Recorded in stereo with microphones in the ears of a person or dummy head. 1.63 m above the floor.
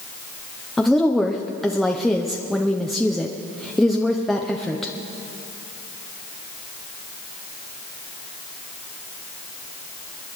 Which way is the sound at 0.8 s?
10° left (ahead or behind).